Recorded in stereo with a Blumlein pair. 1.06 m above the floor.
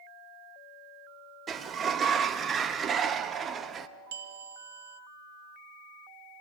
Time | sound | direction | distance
1.5 | a sliding door | 20° right | 0.8 m
4.1 | a bell | 55° right | 0.6 m